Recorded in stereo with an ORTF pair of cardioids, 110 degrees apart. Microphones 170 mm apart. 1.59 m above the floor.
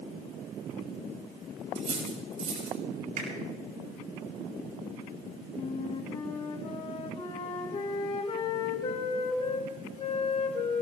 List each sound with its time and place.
1.8 s cutlery clinking: 45° right, 6 m
3.2 s a finger snap: 55° right, 7 m
5.5 s a flute: 40° left, 3.5 m